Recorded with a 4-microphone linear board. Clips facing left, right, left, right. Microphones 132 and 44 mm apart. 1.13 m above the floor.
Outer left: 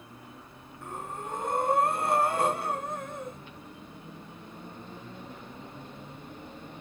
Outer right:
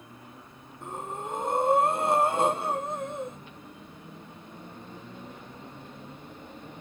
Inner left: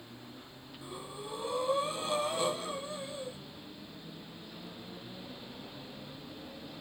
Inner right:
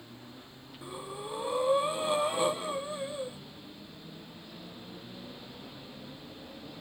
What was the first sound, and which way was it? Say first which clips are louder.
Breathing: outer right 2 dB, inner right 3 dB; 20° right (ahead or behind).